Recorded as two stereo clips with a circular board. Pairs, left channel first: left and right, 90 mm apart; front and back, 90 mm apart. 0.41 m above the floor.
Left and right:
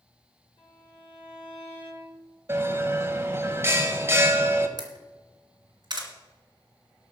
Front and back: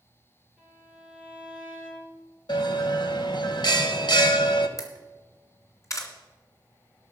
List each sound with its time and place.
0.6 s a violin: 95° left, 5 m
2.5 s a bell: 30° right, 0.9 m
4.8 s a camera shutter: 50° right, 2 m